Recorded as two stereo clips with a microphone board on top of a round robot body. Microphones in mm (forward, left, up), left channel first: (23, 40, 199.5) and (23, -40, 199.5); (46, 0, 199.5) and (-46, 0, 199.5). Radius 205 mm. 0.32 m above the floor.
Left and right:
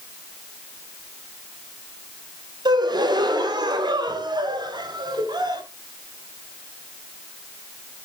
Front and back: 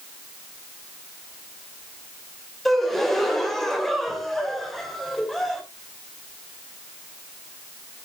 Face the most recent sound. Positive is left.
turn(degrees=-85)